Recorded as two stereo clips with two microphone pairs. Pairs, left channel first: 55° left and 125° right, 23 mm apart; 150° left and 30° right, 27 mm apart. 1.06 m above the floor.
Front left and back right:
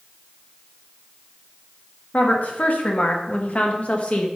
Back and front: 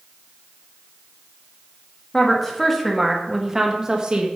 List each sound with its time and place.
2.1 s a woman speaking: 75° left, 2 m; by 4.3 s 25° left, 1.6 m